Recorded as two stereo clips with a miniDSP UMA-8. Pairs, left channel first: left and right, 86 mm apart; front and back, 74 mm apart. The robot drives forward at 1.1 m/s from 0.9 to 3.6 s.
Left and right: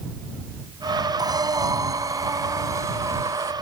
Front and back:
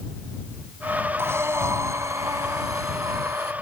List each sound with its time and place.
1.2 s breathing: 125° right; by 3.5 s 150° right